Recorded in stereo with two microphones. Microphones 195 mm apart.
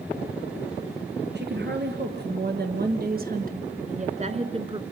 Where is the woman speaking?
60° right (ahead or behind), 2.5 m; by 4.8 s 25° right (ahead or behind), 1.8 m.